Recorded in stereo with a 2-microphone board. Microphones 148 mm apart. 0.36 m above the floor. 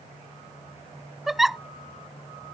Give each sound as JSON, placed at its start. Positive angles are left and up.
{"t": 1.3, "sound": "a giggle", "side_deg": 0}